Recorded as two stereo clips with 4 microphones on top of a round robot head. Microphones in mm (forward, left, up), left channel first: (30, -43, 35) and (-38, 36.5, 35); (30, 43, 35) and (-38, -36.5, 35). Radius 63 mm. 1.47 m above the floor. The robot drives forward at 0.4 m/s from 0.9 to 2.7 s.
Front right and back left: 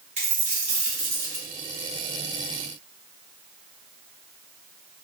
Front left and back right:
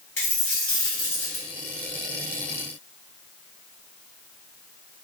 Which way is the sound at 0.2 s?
115° left.